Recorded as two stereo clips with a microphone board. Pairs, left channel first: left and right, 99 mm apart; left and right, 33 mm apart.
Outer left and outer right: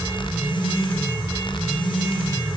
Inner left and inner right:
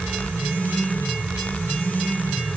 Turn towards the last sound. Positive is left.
No sound to turn to.